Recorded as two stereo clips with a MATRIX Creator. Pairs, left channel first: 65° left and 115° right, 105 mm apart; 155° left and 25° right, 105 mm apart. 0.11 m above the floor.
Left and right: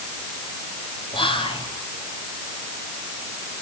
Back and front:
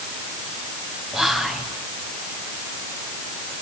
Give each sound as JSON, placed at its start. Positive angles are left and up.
{"t": 1.1, "sound": "whispering", "azimuth_deg": 60, "distance_m": 2.0}